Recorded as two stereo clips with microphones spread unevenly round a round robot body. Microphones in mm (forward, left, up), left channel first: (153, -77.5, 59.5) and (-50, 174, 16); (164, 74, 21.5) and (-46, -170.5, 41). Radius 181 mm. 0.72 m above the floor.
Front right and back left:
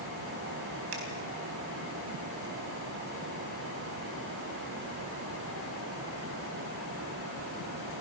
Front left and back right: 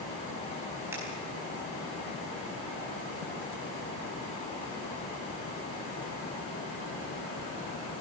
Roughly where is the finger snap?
Behind left.